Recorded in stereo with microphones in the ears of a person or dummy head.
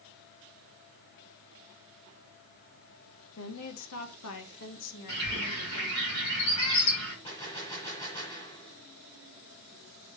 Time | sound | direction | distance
3.4 | a woman speaking | 70° left (ahead or behind) | 0.8 m
5.1 | a bird | 85° left | 5.5 m
7.2 | a gunshot | 25° left (ahead or behind) | 2.5 m